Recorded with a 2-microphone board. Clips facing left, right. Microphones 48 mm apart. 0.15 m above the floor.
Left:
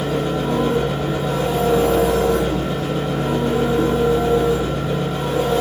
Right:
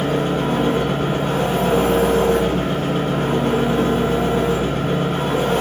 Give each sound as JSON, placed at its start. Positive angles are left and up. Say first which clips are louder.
{"t": 0.0, "sound": "an engine running", "louder": "right 1 dB", "side_deg": -55, "distance_m": 7.0}